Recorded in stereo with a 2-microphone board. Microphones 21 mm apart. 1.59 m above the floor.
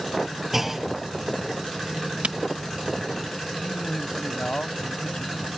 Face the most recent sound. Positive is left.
turn(degrees=55)  # may be behind; listen again after turning